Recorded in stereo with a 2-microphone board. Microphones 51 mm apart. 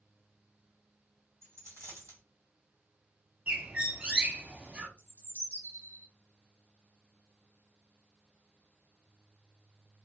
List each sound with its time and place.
1.4 s a dropped coin: 65° right (ahead or behind), 1.7 m
3.5 s a bird: 25° right (ahead or behind), 0.6 m
5.0 s a bird: 50° left (ahead or behind), 1.3 m